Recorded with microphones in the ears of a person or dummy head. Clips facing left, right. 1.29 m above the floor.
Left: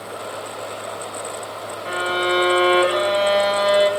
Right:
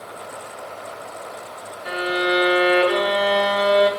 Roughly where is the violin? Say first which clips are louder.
Even; right.